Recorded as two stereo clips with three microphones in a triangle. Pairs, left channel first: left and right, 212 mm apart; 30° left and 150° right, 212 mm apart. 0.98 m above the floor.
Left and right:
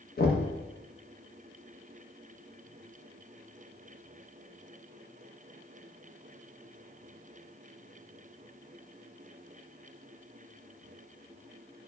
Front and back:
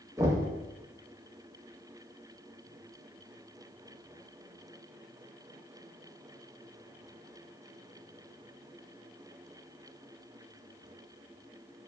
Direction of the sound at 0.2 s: 135° left.